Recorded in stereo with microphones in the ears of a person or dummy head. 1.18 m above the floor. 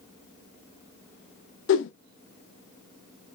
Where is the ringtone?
No ringtone in this recording.